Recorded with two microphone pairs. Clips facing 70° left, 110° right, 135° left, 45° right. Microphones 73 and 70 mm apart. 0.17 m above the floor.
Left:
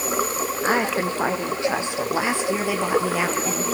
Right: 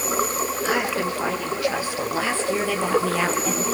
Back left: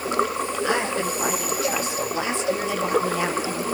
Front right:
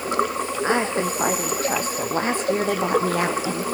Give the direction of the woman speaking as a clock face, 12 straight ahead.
12 o'clock.